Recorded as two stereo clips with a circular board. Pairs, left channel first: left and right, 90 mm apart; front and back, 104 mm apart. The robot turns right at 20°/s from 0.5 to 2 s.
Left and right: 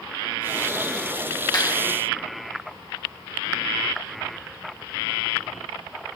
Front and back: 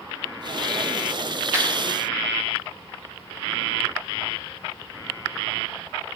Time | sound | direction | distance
1.5 | a clap | 125° left | 3 m